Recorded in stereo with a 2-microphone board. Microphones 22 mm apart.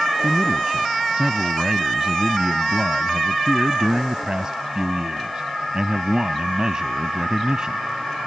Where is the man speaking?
35° right (ahead or behind).